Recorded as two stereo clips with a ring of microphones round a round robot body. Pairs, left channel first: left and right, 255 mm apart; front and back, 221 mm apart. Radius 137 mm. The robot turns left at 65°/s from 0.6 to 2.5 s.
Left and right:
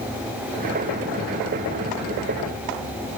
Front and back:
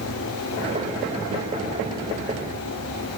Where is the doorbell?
No doorbell in this recording.